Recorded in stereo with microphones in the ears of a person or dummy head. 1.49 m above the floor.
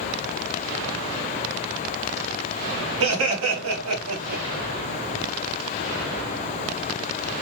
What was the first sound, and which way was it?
Laughter, 85° right.